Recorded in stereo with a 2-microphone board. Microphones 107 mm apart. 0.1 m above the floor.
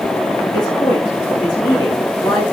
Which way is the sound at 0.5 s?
40° left (ahead or behind).